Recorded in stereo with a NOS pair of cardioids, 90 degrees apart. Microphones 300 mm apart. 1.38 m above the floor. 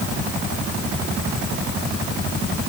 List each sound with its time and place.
Only background noise.